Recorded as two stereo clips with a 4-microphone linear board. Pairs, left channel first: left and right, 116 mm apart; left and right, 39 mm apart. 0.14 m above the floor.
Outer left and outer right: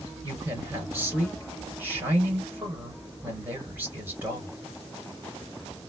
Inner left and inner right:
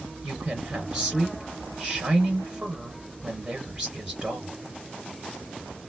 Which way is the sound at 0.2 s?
20° right (ahead or behind).